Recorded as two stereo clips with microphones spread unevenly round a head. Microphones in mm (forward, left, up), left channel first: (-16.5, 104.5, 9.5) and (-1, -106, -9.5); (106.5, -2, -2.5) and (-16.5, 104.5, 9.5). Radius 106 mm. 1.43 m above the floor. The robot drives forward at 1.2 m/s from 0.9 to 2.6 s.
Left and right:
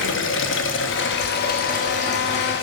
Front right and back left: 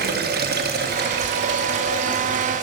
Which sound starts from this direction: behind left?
Running water, at 0.0 s.